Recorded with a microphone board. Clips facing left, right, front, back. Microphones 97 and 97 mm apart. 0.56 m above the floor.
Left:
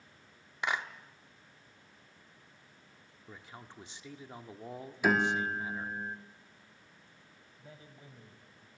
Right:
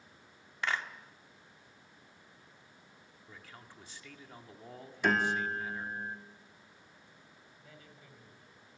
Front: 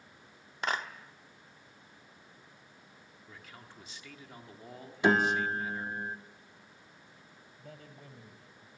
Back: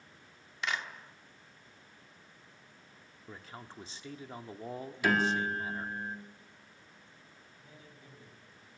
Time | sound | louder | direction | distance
0.6 | a clap | left 1 dB, front 3 dB | 20° left | 1.1 m
3.3 | a man speaking | left 4 dB, back 5 dB | 145° left | 1.4 m
5.0 | a piano | left 1 dB, front 3 dB | 15° left | 1.3 m
7.6 | a man speaking | left 4 dB, front 7 dB | 25° left | 3 m